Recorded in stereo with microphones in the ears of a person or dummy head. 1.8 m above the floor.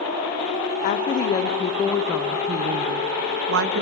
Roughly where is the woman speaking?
Left.